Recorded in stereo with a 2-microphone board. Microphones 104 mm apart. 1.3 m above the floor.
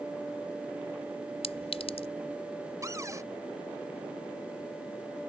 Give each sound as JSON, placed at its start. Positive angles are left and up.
{"t": 1.4, "sound": "a clink", "side_deg": 75}
{"t": 2.8, "sound": "a cupboard door", "side_deg": -30}